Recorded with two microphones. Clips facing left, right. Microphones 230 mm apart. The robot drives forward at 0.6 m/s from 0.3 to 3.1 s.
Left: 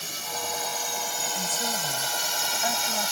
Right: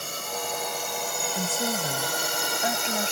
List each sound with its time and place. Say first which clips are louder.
0.0 s a drone: right 3 dB; 60° right (ahead or behind)
1.4 s a woman speaking: right 6 dB; 35° right (ahead or behind); by 3.1 s 25° right (ahead or behind)